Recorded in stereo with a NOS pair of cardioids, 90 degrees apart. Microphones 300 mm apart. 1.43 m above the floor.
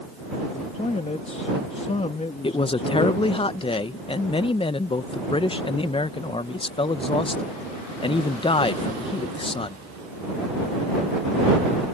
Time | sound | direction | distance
0.4 | a man speaking | 20° left | ?
2.4 | a woman speaking | 15° left | ?